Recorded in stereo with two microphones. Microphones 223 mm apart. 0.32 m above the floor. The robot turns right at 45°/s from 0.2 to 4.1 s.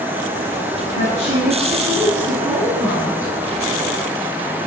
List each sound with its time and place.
0.9 s a woman speaking: 85° right, 3 m; by 3.3 s 20° left, 3 m